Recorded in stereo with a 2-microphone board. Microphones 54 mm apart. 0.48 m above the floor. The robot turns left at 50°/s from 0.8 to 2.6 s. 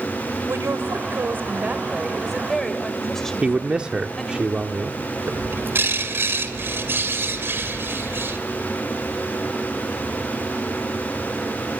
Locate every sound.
0.5 s a woman speaking: 100° right, 2 m; by 4.4 s 170° left, 2 m
3.4 s a man speaking: 20° right (ahead or behind), 0.9 m
5.3 s a bird: 50° right (ahead or behind), 2 m